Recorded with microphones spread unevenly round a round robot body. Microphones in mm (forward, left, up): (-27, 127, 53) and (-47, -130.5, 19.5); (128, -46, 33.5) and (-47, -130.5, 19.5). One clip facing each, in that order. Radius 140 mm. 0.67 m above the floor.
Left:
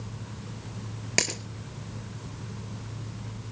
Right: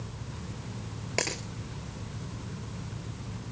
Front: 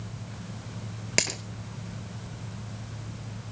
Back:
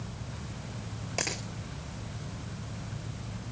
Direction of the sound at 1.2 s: 35° left.